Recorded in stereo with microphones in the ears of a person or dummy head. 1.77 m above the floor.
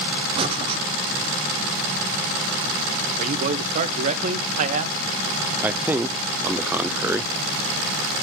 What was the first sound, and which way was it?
Breathing, 30° right (ahead or behind).